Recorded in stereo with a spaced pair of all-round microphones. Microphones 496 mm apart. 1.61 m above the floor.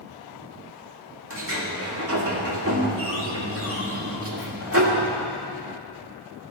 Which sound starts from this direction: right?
A sliding door, at 1.3 s.